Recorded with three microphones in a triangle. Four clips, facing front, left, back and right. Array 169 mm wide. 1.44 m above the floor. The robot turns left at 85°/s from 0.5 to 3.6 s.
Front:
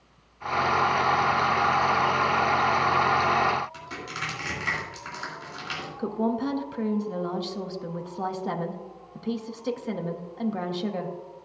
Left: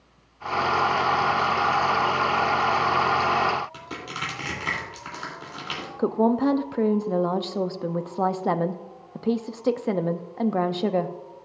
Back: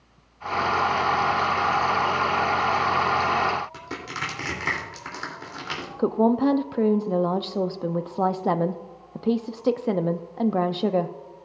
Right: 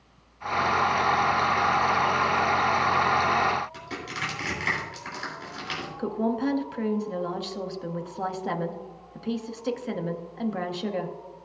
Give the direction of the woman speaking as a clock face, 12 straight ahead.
7 o'clock.